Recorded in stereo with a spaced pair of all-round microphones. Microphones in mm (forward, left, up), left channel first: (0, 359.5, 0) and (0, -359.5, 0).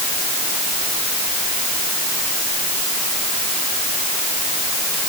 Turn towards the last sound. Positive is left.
No sound to turn to.